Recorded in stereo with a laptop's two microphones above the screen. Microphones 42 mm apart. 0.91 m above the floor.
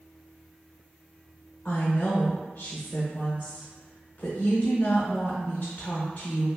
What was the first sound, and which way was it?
A woman speaking, 35° left (ahead or behind).